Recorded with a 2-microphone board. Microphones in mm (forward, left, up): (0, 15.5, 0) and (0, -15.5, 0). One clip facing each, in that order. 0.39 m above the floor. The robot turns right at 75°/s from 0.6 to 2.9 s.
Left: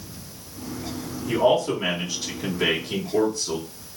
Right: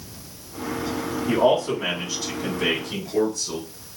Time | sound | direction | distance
1.3 | a man speaking | 15° right (ahead or behind) | 1.0 m